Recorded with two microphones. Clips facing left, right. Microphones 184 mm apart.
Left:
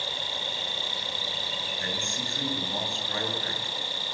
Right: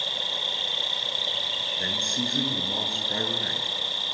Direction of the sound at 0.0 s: 10° left (ahead or behind).